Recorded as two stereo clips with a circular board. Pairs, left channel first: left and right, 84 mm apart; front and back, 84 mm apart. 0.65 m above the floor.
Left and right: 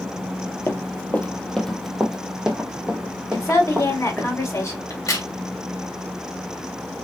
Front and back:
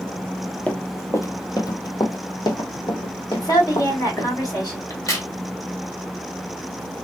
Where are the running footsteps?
60° left, 0.7 m; by 4.3 s 15° right, 2 m.